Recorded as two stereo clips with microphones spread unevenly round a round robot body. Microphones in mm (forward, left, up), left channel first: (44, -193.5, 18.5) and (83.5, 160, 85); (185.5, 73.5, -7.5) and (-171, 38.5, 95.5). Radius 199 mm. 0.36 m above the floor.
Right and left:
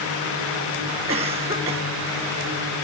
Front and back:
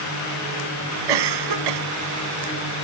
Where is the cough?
160° left.